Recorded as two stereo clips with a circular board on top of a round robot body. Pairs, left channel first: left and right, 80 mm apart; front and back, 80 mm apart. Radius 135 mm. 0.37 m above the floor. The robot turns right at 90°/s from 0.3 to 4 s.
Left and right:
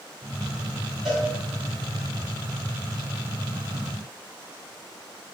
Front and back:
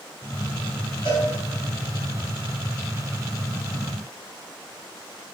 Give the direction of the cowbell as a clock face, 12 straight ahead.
12 o'clock.